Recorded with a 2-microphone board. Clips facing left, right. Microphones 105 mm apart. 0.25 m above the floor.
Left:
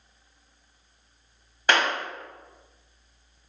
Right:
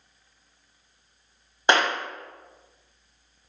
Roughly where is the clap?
Right.